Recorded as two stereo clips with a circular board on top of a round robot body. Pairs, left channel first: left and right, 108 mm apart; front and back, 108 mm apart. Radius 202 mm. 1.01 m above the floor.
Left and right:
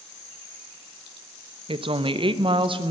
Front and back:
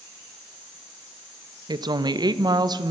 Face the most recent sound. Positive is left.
turn(degrees=-130)